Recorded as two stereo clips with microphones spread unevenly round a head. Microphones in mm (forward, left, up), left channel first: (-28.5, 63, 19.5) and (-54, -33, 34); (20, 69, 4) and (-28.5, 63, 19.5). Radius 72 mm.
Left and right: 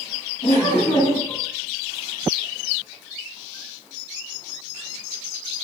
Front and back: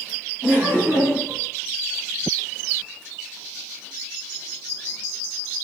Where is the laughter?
115° left, 3 m.